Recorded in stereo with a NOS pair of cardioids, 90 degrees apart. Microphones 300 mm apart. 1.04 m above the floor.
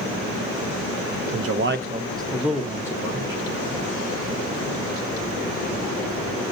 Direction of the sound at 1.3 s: 60° right.